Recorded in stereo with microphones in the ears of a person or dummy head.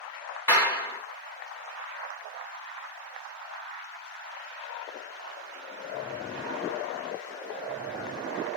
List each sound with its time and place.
0.5 s a clap: 15° left (ahead or behind), 1.4 m